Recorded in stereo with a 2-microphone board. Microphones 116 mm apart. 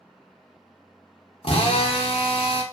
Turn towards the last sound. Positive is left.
turn(degrees=50)  # may be behind; listen again after turning